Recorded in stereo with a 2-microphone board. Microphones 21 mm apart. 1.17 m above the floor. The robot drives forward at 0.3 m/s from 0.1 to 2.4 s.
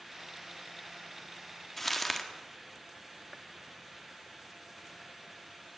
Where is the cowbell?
I don't hear a cowbell.